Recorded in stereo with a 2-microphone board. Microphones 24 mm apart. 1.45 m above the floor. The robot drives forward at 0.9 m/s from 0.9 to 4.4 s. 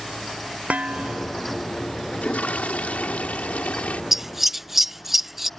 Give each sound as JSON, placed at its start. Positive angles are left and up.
{"t": 0.7, "sound": "dishes clattering", "side_deg": -70}
{"t": 2.1, "sound": "a toilet flushing", "side_deg": 85}
{"t": 4.1, "sound": "scissors", "side_deg": -10}